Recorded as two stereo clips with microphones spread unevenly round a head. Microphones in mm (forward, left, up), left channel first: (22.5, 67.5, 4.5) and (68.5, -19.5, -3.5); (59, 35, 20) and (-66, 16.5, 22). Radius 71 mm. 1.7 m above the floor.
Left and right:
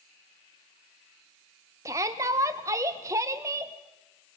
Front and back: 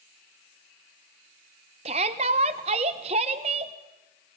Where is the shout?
130° right, 1.0 m.